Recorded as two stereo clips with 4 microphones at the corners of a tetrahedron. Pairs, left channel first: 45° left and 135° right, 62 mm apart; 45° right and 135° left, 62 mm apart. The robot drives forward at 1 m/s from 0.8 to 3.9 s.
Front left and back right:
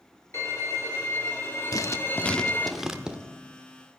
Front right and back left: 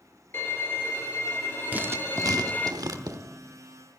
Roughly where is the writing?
Left.